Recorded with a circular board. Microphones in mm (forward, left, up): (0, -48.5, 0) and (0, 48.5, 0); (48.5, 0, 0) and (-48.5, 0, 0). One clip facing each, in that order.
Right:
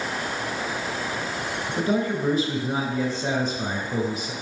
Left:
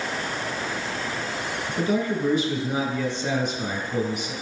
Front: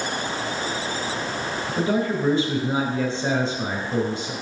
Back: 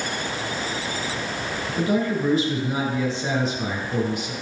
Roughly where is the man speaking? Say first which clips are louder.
Even, even; ahead right.